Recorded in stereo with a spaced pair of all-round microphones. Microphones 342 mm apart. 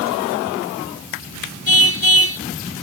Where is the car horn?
85° left.